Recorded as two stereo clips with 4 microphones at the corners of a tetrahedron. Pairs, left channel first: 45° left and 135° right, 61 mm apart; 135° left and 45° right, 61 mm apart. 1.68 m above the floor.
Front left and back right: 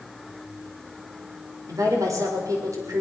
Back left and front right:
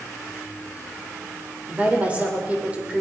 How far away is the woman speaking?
About 6 m.